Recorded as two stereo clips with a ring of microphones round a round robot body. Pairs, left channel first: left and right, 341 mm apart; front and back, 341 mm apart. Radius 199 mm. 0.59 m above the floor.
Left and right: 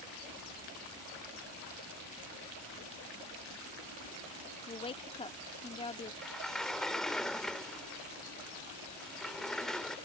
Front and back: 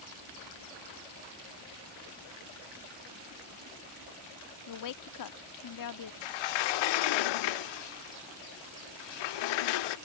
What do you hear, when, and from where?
4.7 s a woman speaking: 15° left
6.2 s a sliding door: straight ahead